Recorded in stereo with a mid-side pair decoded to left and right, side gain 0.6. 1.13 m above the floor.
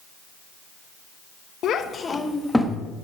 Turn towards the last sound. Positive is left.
turn(degrees=-5)